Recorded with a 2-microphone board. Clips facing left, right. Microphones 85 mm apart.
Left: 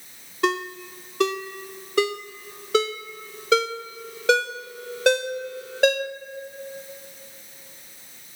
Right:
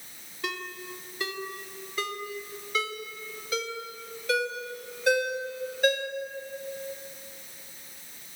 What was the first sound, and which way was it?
A ringtone, 70° left (ahead or behind).